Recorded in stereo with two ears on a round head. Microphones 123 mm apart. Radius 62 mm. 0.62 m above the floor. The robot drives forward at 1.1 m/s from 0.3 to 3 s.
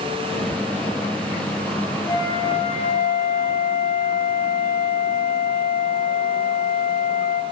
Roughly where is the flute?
Left.